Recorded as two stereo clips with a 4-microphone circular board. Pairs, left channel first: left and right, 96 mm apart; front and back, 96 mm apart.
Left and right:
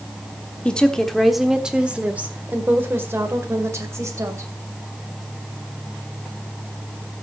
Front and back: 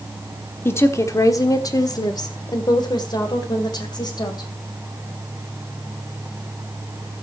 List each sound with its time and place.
0.7 s a woman speaking: 25° left, 1.0 m; by 4.5 s 35° right, 2.5 m